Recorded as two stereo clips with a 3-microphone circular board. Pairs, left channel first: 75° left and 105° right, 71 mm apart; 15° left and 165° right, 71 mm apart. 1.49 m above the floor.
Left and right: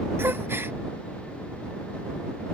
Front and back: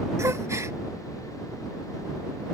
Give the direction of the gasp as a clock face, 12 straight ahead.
5 o'clock.